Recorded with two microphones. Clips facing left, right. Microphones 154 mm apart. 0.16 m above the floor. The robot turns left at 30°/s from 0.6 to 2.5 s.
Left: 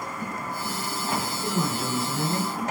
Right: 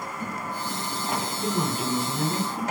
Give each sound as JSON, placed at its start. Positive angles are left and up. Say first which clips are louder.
{"t": 1.4, "sound": "a man speaking", "louder": "even", "azimuth_deg": -130, "distance_m": 1.1}